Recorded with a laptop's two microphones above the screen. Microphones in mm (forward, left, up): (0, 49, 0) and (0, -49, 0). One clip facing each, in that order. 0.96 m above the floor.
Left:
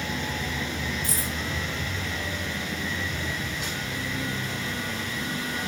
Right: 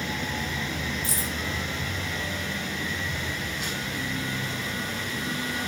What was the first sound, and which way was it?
Keys jangling, 20° right (ahead or behind).